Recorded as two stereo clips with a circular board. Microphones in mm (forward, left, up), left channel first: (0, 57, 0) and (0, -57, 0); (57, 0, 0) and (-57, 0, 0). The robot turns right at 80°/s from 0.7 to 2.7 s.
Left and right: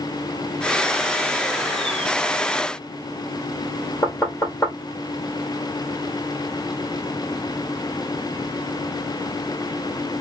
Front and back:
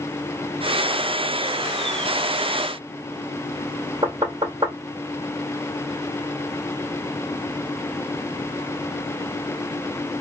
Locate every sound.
4.0 s knocking: 150° left, 1.8 m